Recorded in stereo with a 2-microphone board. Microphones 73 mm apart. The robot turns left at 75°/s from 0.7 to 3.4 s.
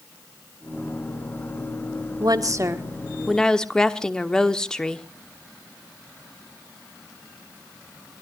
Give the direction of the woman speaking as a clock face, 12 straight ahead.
3 o'clock.